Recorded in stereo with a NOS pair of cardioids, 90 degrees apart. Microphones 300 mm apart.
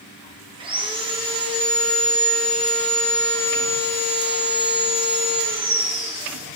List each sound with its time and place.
0.6 s sawing: 15° right, 1.3 m